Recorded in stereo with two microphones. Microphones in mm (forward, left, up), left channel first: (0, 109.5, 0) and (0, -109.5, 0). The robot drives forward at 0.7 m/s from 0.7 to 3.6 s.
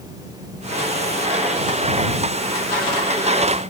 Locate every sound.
Only background noise.